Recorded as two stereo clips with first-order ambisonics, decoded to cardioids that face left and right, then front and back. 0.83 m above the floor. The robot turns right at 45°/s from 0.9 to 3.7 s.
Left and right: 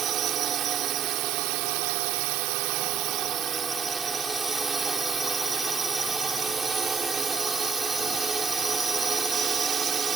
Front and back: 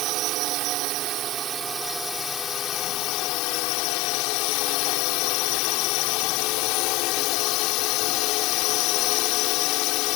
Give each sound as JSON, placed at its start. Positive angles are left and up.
{"t": 0.0, "sound": "a drone", "azimuth_deg": -145}